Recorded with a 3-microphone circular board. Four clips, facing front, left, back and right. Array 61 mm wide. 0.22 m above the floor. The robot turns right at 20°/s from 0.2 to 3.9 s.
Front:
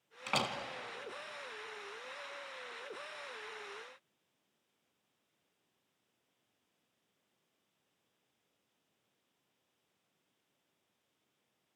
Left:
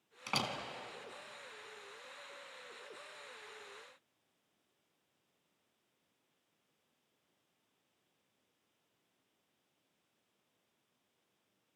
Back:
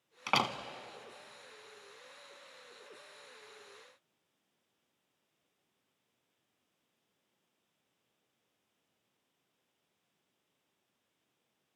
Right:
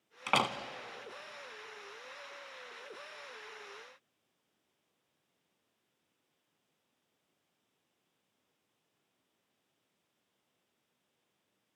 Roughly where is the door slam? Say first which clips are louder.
Right 8 dB, back 4 dB; behind right.